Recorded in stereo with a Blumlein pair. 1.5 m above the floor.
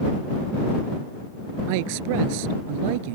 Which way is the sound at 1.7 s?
45° right.